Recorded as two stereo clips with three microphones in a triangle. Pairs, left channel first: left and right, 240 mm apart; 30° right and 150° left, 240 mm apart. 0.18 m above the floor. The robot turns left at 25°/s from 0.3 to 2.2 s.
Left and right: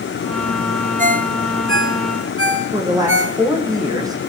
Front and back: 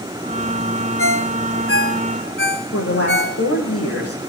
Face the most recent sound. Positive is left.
turn(degrees=-15)